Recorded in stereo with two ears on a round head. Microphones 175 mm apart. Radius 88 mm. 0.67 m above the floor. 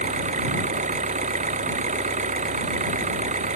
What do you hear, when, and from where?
0.0 s an engine running: 40° right (ahead or behind)